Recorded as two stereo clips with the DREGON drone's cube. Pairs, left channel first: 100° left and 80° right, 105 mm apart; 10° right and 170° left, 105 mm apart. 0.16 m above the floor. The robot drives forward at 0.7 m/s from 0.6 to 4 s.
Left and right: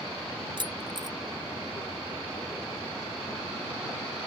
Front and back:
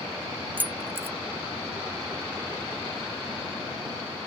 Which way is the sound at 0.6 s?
115° right.